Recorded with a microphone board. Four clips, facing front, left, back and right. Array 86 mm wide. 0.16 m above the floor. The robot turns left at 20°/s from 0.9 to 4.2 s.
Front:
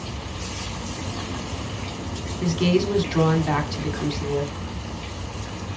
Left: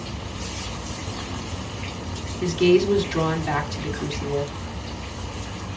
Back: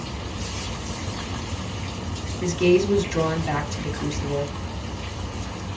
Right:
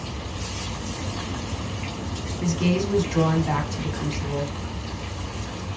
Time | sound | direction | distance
2.4 | a woman speaking | 40° left | 1.0 m